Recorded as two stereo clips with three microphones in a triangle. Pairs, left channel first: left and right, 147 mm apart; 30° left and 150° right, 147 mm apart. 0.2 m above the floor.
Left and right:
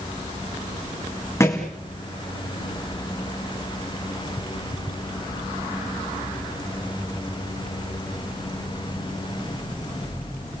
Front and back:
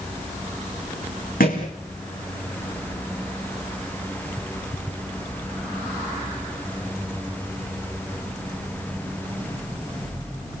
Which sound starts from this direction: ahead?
A thud, at 1.4 s.